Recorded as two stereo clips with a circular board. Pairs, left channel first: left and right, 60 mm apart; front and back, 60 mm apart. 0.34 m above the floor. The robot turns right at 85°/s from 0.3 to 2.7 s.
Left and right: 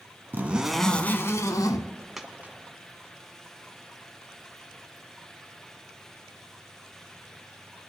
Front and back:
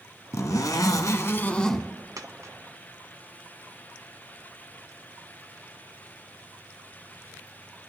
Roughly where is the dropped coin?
Behind.